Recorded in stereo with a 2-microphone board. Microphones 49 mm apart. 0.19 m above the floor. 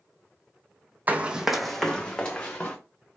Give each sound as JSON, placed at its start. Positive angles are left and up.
{"t": 1.1, "sound": "running footsteps", "side_deg": -35, "distance_m": 0.6}